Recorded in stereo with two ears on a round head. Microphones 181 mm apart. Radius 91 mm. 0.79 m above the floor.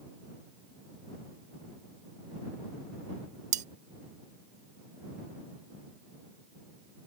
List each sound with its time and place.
3.5 s cutlery clinking: 35° right (ahead or behind)